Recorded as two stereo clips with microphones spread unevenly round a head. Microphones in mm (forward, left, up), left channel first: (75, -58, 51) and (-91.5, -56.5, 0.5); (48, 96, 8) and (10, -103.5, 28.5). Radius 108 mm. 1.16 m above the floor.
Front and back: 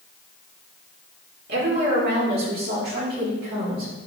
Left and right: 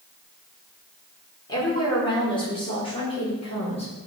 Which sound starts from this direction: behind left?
A woman speaking, at 1.5 s.